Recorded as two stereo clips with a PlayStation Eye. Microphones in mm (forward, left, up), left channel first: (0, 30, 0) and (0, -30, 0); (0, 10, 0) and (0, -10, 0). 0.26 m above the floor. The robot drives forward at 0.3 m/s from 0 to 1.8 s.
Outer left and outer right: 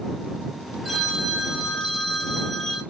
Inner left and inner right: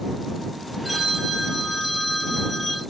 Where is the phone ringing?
Centre (ahead or behind), 3 m.